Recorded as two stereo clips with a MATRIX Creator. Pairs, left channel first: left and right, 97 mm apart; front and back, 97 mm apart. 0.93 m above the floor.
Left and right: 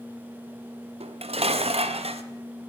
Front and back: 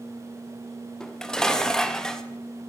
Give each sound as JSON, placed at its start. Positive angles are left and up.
{"t": 1.0, "sound": "dishes clattering", "azimuth_deg": -85, "distance_m": 0.5}